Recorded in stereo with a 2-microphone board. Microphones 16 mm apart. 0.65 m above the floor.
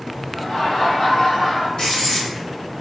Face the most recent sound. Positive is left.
turn(degrees=60)  # may be behind; listen again after turning